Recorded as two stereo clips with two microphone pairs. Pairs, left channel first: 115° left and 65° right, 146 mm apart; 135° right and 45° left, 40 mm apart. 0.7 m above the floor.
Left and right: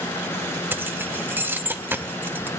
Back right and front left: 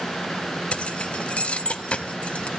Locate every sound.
0.7 s keys jangling: 130° right, 0.5 m